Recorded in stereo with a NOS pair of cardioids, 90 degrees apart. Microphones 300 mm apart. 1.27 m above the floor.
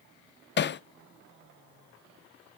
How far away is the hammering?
About 0.6 m.